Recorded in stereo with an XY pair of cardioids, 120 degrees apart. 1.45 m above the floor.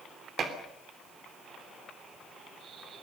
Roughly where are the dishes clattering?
Ahead right.